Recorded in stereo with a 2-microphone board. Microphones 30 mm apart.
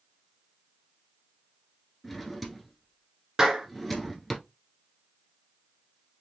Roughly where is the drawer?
Centre.